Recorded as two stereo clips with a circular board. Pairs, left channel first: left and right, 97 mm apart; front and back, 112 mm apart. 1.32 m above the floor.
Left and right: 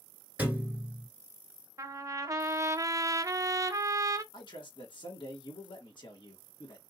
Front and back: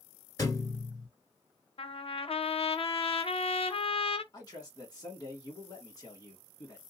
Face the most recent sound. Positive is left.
turn(degrees=55)